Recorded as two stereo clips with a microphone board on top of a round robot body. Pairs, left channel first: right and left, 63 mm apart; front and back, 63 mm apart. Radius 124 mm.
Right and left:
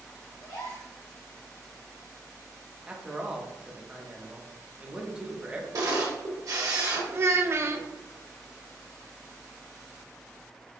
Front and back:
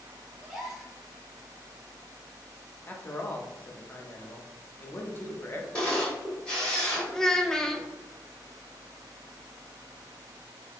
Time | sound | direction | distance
0.4 | a gasp | 95° right | 1.5 m
2.9 | a man speaking | 30° left | 0.9 m
5.7 | a camera shutter | 75° left | 1.4 m
7.1 | a child speaking | 80° left | 0.7 m